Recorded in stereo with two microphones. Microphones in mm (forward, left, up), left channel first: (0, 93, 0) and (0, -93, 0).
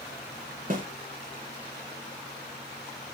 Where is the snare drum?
50° right (ahead or behind), 1.3 m.